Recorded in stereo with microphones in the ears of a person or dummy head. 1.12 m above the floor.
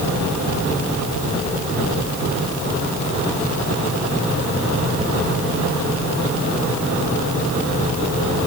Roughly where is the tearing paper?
I don't hear tearing paper.